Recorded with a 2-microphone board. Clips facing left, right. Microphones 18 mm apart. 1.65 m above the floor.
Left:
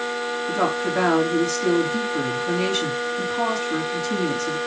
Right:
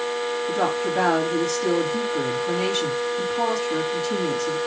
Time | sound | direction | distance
0.5 | a woman speaking | 30° left (ahead or behind) | 3.5 m